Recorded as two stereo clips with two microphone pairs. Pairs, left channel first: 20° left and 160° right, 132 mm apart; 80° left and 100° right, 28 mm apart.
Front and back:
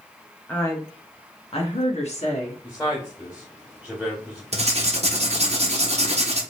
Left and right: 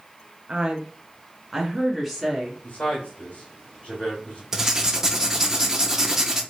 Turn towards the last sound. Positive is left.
turn(degrees=-165)